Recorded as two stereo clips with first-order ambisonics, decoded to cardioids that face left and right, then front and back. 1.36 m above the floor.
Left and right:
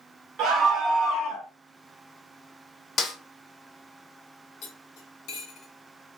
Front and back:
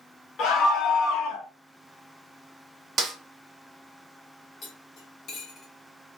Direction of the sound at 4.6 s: 60° left.